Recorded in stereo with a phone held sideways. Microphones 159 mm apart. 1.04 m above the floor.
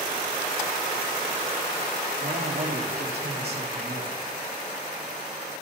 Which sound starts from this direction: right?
A man speaking, at 2.2 s.